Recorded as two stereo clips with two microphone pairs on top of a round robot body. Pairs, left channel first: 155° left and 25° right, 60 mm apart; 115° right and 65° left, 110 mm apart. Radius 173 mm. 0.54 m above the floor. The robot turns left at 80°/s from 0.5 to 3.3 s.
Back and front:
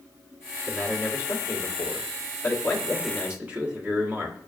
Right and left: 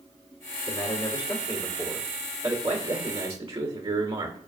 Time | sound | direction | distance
0.7 | a man speaking | 115° right | 1.9 m